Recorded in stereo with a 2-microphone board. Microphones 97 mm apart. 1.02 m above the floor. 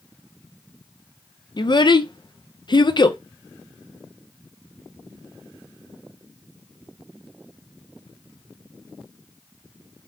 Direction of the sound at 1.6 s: 50° left (ahead or behind).